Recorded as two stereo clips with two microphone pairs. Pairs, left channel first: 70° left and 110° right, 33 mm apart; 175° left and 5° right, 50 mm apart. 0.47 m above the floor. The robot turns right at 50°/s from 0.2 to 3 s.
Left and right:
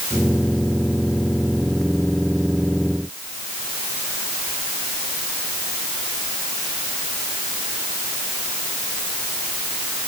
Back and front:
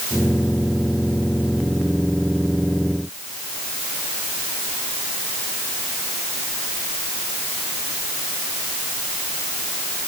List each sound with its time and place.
Only background noise.